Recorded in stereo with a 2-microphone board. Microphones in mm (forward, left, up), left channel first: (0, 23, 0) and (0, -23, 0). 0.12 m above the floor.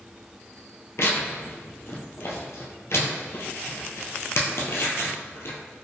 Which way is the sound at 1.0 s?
65° left (ahead or behind).